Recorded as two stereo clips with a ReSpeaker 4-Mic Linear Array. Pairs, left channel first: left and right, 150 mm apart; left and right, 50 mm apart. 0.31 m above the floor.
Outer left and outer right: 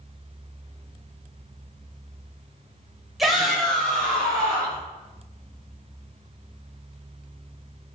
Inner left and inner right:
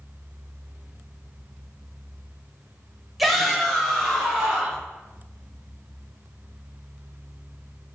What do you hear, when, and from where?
3.2 s a shout: centre (ahead or behind), 0.8 m; by 4.8 s 5° left (ahead or behind), 2.5 m